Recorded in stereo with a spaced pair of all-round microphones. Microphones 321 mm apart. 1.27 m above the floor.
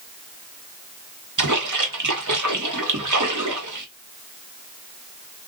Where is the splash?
70° right (ahead or behind), 0.9 m.